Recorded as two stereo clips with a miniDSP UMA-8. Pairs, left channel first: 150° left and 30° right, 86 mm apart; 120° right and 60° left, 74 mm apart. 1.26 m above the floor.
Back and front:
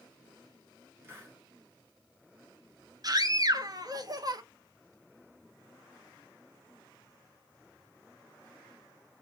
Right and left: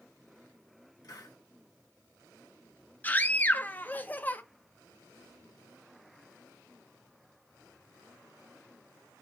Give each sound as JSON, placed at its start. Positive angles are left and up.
{"t": 1.0, "sound": "a hiss", "azimuth_deg": -90, "distance_m": 1.6}
{"t": 3.0, "sound": "a scream", "azimuth_deg": -55, "distance_m": 0.7}